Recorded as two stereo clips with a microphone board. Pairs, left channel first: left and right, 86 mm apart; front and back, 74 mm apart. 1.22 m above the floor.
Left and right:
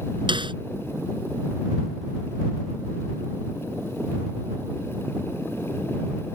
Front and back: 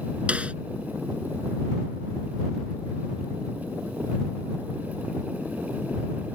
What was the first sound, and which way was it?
A snare drum, 105° right.